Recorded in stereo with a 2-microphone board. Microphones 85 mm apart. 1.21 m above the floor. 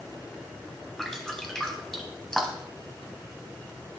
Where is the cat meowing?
No cat meowing in this recording.